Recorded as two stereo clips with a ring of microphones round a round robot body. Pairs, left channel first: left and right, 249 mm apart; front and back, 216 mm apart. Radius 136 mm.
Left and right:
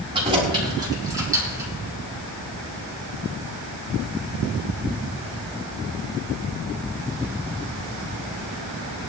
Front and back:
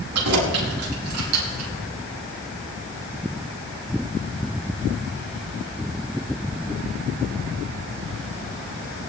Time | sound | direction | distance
0.1 | keys jangling | 160° right | 5 m